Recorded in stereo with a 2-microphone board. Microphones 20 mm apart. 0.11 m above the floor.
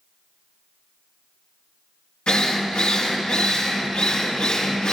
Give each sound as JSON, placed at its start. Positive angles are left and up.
{"t": 2.3, "sound": "a drill", "side_deg": 65, "distance_m": 3.5}